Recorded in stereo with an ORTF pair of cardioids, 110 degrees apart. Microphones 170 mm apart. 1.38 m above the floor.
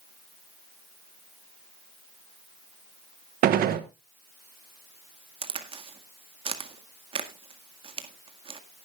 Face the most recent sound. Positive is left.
turn(degrees=-35)